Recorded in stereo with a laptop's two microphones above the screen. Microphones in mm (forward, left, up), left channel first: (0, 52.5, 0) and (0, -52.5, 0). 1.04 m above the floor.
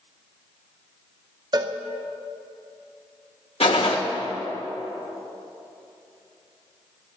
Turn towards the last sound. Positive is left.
turn(degrees=65)  # may be behind; listen again after turning